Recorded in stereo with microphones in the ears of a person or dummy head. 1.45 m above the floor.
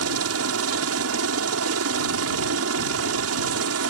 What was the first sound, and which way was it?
A helicopter, 75° right (ahead or behind).